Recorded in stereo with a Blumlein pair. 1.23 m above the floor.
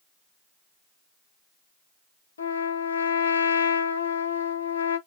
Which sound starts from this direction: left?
A trumpet, at 2.4 s.